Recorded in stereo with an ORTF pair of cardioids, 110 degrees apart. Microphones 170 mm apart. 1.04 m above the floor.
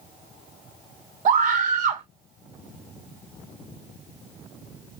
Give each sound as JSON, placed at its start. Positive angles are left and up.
{"t": 1.2, "sound": "a scream", "azimuth_deg": -60, "distance_m": 3.0}